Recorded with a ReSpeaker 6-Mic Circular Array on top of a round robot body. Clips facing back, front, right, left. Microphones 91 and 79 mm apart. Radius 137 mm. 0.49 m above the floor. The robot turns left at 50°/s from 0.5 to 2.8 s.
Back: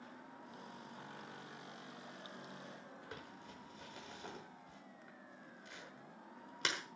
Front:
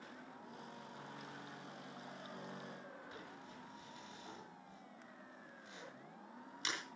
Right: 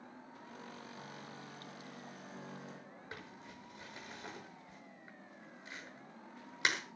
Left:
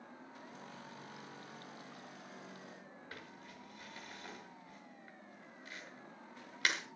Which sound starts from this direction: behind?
Crumpling, at 3.1 s.